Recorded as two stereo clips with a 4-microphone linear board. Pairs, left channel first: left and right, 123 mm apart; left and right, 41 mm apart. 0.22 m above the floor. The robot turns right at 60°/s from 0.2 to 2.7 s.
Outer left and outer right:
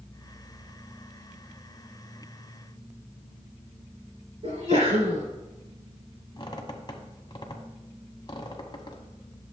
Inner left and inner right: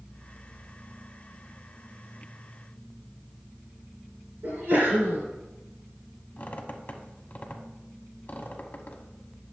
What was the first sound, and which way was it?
A sneeze, 55° right (ahead or behind).